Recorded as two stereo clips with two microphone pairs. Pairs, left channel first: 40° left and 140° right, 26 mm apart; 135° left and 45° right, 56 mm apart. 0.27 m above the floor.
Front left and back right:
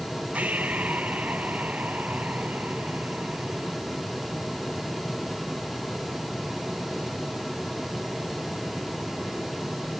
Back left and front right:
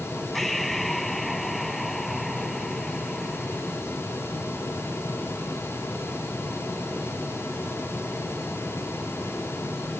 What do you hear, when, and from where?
0.3 s breathing: 140° right